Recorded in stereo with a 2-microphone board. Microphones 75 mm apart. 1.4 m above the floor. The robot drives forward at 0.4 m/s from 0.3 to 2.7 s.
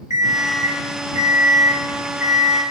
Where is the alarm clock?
40° right (ahead or behind), 0.7 m; by 2.6 s 25° right (ahead or behind), 1.0 m.